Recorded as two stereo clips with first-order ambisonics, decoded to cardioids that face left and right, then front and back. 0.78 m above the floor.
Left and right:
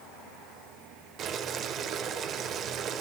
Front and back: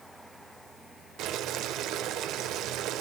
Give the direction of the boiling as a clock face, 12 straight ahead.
5 o'clock.